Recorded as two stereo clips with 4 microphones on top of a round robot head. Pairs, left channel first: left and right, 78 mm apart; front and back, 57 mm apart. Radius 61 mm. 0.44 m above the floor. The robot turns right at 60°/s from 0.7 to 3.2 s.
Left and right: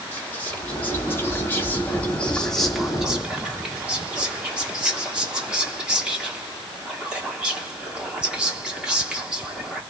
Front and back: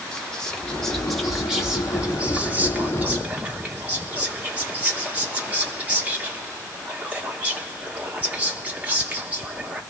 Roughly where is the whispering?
Ahead left.